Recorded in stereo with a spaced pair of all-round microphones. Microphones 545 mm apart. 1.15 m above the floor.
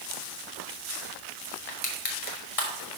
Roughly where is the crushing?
Left.